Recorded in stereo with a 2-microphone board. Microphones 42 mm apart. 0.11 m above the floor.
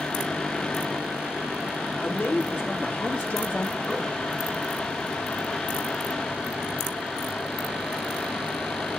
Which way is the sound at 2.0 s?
45° left (ahead or behind).